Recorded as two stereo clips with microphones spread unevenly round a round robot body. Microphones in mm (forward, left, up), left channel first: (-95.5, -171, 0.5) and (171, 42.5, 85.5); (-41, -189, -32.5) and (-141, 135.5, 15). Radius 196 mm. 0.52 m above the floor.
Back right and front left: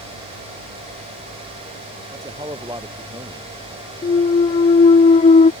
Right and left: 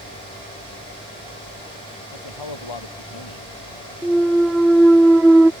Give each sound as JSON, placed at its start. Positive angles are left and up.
{"t": 2.1, "sound": "a man speaking", "azimuth_deg": -40}
{"t": 4.0, "sound": "a clunk", "azimuth_deg": -150}